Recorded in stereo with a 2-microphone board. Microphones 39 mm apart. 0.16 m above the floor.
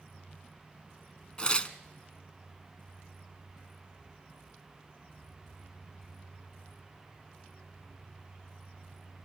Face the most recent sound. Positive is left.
turn(degrees=25)  # may be behind; listen again after turning